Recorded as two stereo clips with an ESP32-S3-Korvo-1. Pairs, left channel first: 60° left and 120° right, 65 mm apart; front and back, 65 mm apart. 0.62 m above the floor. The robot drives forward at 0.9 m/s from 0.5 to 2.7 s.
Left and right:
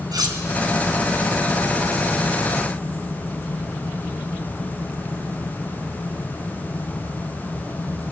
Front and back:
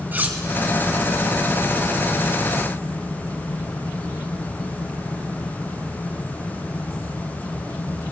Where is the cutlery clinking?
120° right, 3 m.